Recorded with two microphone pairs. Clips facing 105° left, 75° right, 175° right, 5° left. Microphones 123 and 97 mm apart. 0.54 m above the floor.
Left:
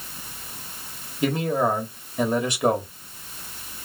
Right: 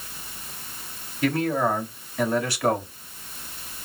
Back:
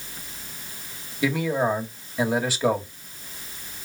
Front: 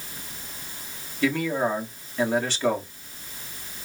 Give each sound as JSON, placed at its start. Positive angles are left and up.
{"t": 1.2, "sound": "a man speaking", "azimuth_deg": 125, "distance_m": 1.3}